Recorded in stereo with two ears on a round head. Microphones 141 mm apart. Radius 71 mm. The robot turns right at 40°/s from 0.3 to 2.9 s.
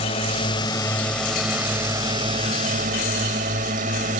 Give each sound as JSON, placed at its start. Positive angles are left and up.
{"t": 0.0, "sound": "a drone", "azimuth_deg": 140}